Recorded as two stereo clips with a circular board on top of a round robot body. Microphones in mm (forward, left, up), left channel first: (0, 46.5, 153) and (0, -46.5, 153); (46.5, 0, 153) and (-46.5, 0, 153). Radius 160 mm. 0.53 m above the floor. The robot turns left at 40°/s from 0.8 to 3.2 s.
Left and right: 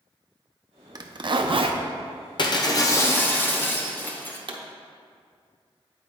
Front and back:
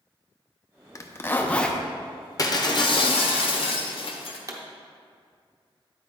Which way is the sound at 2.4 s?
55° left.